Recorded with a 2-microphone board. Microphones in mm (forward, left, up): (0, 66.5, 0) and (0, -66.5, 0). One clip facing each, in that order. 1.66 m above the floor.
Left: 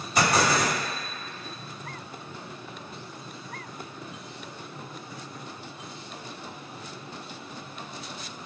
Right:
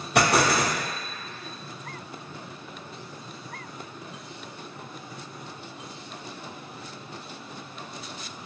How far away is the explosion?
About 0.7 m.